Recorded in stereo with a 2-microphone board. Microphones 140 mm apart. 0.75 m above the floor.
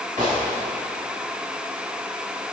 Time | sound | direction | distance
0.2 | a gunshot | 70° right (ahead or behind) | 5 m